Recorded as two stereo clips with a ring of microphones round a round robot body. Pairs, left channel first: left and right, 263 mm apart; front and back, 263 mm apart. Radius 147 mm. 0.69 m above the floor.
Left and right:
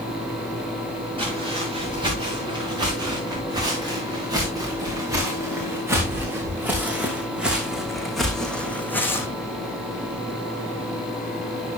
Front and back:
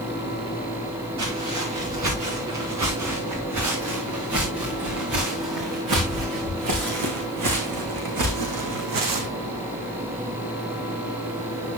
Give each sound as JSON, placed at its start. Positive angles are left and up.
{"t": 1.2, "sound": "footsteps", "azimuth_deg": -160, "distance_m": 8.5}